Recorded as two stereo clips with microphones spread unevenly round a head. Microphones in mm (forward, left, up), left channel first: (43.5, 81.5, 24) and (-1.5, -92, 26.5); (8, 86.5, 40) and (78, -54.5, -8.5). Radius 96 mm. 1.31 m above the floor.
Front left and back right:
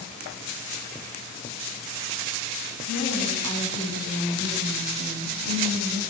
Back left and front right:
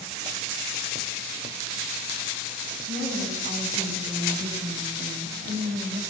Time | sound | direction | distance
2.9 | a woman speaking | 110° right | 8.5 m